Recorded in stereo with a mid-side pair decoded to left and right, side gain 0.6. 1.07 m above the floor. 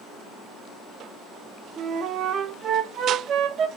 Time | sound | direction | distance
1.8 | a flute | 50° right | 0.6 m